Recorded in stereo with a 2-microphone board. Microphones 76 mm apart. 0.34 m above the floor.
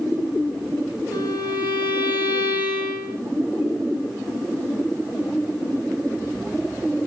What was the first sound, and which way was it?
A violin, 30° right (ahead or behind).